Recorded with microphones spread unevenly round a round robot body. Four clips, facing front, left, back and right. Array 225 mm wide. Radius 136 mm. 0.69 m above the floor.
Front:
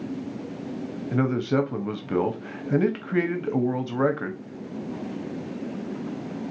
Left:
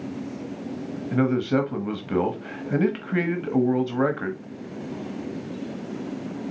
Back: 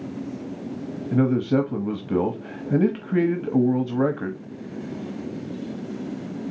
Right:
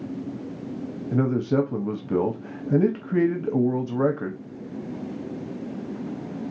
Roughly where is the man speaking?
Behind right.